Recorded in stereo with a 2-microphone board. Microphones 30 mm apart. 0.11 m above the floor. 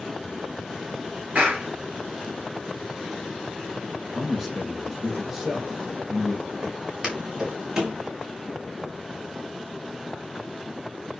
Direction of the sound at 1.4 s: 55° right (ahead or behind).